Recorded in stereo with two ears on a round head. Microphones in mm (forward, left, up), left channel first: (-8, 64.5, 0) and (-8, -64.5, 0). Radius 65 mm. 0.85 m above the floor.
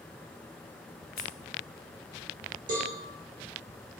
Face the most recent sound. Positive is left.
turn(degrees=-65)  # may be behind; listen again after turning